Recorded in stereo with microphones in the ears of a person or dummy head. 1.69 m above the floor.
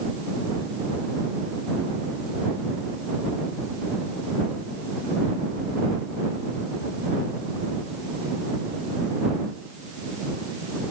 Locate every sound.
Only background noise.